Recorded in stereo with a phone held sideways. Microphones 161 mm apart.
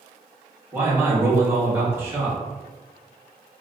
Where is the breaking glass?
I don't hear breaking glass.